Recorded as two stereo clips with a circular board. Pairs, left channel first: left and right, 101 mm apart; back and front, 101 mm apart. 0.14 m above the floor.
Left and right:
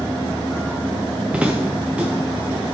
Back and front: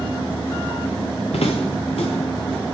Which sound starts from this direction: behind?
Footsteps, at 1.3 s.